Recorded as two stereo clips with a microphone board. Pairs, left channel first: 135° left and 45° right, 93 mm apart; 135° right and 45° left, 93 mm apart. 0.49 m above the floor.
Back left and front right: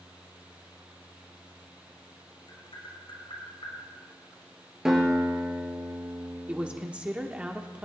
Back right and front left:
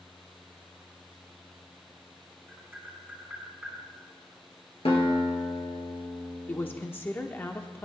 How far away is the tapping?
About 4.5 m.